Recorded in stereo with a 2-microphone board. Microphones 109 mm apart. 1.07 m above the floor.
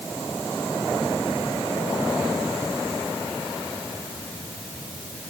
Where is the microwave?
No microwave in this recording.